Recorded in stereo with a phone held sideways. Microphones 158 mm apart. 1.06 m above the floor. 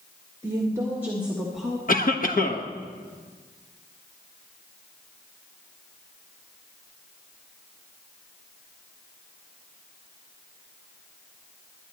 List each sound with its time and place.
0.4 s a woman speaking: 20° right (ahead or behind), 1.8 m; by 1.8 s 5° left (ahead or behind), 1.5 m
1.9 s a cough: 55° left (ahead or behind), 1.2 m